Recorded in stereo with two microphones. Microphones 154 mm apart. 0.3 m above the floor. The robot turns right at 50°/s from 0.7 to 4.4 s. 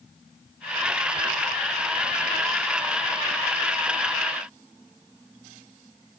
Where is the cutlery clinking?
No cutlery clinking in this recording.